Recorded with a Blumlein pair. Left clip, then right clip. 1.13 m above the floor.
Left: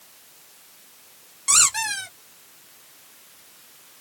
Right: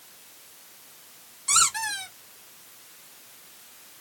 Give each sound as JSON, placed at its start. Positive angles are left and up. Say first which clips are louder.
{"t": 1.5, "sound": "a squeak", "louder": "left 3 dB", "azimuth_deg": 65, "distance_m": 1.6}